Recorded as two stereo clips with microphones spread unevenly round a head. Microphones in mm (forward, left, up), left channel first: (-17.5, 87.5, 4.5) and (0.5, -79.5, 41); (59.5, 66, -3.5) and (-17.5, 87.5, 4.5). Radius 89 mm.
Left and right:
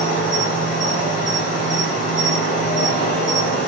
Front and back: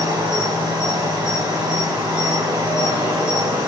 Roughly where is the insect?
Behind left.